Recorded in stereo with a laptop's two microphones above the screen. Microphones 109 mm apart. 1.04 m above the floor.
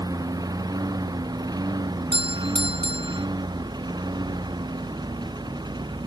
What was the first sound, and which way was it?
A lawn mower, 35° right (ahead or behind).